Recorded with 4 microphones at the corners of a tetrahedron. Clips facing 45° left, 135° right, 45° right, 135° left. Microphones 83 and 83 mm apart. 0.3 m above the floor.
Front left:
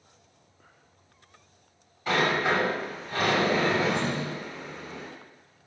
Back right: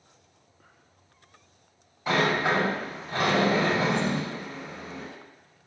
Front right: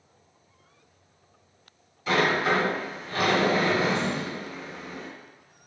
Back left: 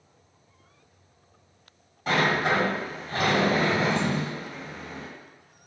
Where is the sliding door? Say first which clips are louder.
Back right 1 dB, even; 155° left, 1.9 m.